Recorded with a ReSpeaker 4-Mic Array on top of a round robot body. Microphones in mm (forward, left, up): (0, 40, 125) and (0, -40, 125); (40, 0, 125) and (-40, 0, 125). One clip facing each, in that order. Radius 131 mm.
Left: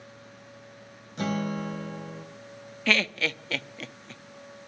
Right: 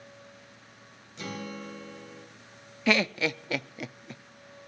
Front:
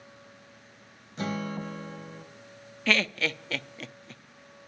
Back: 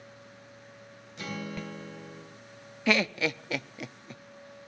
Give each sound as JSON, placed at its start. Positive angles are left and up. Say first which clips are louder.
{"t": 1.2, "sound": "a guitar", "louder": "left 9 dB, front 5 dB", "azimuth_deg": 50, "distance_m": 3.0}
{"t": 2.9, "sound": "laughter", "louder": "right 1 dB, back 1 dB", "azimuth_deg": -135, "distance_m": 0.7}